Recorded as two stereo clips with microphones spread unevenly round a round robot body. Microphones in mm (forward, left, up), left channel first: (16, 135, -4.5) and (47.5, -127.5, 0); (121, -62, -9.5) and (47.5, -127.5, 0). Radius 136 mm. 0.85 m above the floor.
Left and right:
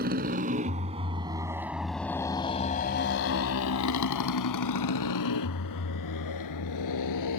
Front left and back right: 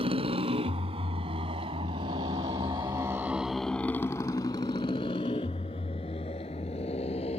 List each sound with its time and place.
0.0 s a motorcycle: 140° right; by 7.4 s 90° left